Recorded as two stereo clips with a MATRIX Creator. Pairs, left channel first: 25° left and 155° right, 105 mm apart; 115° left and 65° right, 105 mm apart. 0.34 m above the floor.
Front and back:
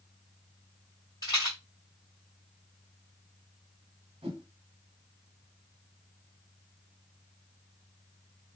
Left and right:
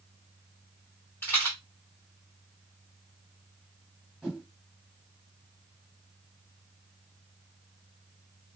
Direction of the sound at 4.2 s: 155° right.